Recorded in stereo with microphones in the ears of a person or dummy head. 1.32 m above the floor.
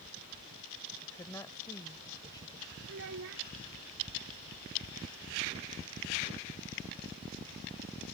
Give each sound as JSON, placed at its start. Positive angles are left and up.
{"t": 1.0, "sound": "a woman speaking", "side_deg": 15}
{"t": 2.9, "sound": "a child speaking", "side_deg": -60}